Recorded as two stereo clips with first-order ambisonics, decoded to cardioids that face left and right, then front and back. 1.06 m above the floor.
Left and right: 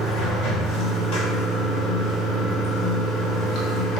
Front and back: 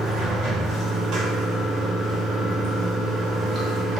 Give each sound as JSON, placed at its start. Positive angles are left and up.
{"t": 0.0, "sound": "running water", "azimuth_deg": 125, "distance_m": 1.1}